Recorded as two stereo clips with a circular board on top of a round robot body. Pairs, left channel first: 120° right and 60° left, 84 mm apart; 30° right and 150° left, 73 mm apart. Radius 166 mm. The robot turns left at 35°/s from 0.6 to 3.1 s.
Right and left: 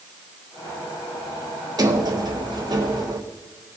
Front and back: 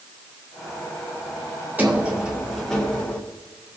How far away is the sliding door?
About 2.5 m.